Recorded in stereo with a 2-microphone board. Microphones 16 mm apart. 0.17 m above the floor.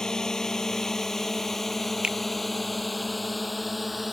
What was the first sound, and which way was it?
A drone, 40° left (ahead or behind).